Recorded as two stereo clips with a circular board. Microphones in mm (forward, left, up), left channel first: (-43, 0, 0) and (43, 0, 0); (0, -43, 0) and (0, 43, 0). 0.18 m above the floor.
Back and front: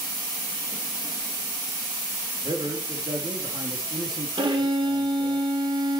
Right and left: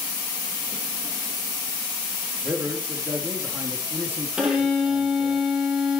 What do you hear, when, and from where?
2.4 s a man speaking: 25° left, 4.5 m
4.4 s a violin: 10° left, 5.5 m